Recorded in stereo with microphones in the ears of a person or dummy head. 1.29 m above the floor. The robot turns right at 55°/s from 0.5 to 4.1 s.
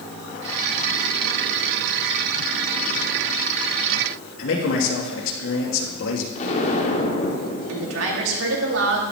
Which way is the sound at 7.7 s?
75° right (ahead or behind).